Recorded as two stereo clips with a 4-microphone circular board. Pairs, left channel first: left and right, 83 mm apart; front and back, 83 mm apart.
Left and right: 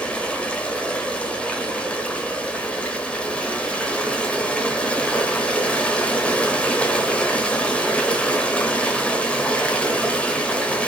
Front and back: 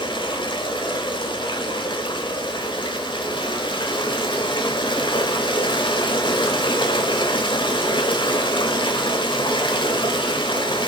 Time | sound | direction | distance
0.0 | running water | 15° left | 0.8 m